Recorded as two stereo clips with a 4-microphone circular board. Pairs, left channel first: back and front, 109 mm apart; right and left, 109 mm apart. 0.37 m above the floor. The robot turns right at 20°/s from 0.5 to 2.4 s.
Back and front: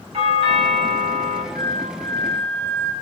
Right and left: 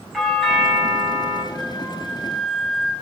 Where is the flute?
10° right, 1.5 m; by 2.9 s 10° left, 1.5 m.